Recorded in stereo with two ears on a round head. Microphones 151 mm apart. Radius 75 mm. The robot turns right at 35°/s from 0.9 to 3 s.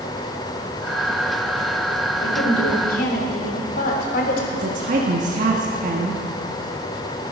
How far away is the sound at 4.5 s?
About 1.4 m.